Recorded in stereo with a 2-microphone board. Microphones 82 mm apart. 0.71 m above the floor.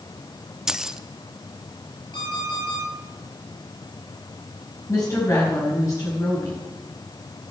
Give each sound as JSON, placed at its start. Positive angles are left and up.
{"t": 0.7, "sound": "keys jangling", "side_deg": -10, "distance_m": 0.6}
{"t": 2.1, "sound": "an alarm clock", "side_deg": 60, "distance_m": 8.5}
{"t": 4.9, "sound": "a woman speaking", "side_deg": 45, "distance_m": 4.5}